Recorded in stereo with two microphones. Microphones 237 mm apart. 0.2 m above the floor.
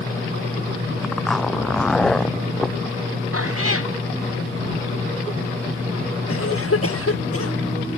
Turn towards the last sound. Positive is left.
turn(degrees=75)  # may be behind; listen again after turning